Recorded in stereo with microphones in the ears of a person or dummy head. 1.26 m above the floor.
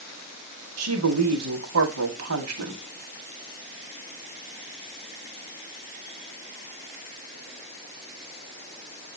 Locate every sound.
0.8 s a woman speaking: 80° right, 3 m